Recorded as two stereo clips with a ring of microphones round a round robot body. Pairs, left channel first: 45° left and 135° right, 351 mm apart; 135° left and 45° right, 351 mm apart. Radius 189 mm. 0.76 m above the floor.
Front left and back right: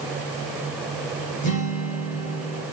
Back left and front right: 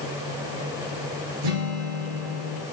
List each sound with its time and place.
1.4 s a guitar: 25° right, 3 m